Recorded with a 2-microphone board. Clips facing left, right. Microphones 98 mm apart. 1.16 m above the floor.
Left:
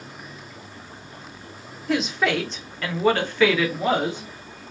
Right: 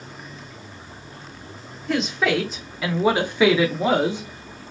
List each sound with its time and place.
1.9 s a woman speaking: centre (ahead or behind), 0.9 m; by 4.6 s 20° right (ahead or behind), 1.0 m